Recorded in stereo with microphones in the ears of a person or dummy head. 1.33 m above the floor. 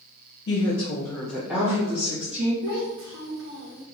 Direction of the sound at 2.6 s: 65° right (ahead or behind).